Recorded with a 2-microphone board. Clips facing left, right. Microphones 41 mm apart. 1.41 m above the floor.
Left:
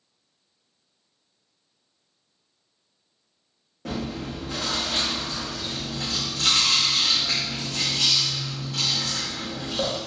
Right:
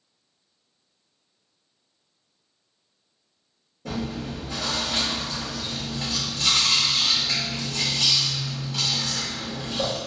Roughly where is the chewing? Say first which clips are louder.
Even; left.